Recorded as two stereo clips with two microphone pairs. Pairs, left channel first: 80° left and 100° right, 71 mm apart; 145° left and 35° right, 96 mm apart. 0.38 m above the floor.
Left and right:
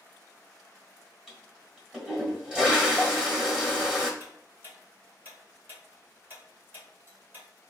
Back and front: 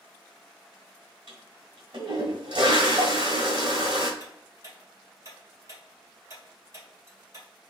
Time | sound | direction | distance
1.3 | a toilet flushing | 25° right | 1.7 m
4.2 | ticking | 60° right | 1.8 m